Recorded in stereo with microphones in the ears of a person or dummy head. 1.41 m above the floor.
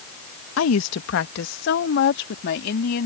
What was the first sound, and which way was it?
A woman speaking, 75° left (ahead or behind).